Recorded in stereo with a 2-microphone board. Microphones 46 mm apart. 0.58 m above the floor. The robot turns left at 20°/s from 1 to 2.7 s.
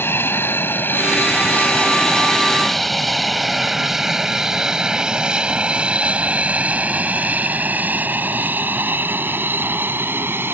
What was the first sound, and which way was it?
An aircraft, 55° left (ahead or behind).